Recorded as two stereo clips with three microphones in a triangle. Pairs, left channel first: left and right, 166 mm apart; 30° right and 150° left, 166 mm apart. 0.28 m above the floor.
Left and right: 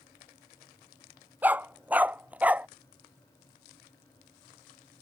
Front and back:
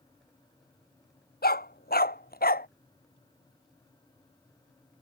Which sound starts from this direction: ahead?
A dog barking, at 1.4 s.